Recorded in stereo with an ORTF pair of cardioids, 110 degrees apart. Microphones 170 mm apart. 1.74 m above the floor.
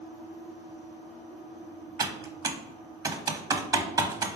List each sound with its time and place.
2.0 s typing on a keyboard: 20° right, 0.8 m